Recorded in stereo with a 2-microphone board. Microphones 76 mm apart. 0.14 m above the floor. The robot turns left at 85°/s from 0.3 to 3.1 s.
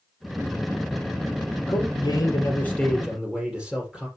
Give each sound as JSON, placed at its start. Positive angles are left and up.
{"t": 1.7, "sound": "a man speaking", "azimuth_deg": 105, "distance_m": 3.0}